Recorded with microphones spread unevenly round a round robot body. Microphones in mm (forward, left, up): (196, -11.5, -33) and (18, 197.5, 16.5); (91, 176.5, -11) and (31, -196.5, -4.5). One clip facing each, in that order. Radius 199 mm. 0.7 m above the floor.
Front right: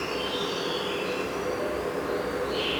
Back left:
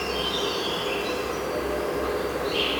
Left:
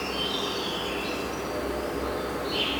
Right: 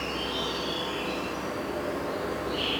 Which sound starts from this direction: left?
An insect, at 0.0 s.